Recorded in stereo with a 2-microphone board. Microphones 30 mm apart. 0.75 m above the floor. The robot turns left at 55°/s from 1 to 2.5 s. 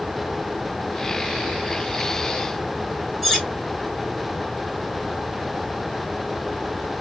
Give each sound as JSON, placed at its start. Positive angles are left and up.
{"t": 3.2, "sound": "cutlery clinking", "side_deg": 5, "distance_m": 1.7}